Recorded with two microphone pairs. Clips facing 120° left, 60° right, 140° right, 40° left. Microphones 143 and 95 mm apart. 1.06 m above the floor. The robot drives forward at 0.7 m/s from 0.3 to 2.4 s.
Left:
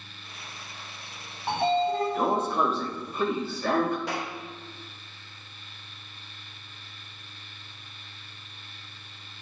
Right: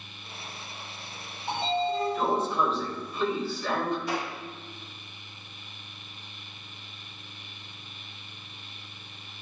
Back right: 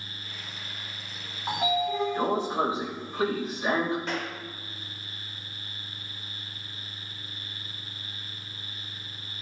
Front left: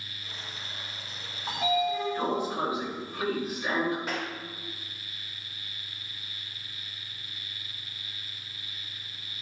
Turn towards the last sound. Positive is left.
turn(degrees=125)